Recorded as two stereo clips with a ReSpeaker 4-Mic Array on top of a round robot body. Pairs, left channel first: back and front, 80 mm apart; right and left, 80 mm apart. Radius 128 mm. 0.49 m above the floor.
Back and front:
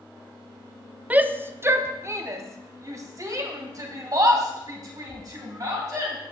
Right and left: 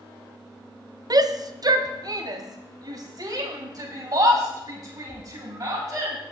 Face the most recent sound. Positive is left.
turn(degrees=45)